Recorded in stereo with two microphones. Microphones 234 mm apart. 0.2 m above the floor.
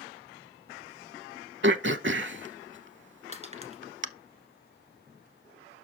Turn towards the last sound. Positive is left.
turn(degrees=-30)  # may be behind; listen again after turning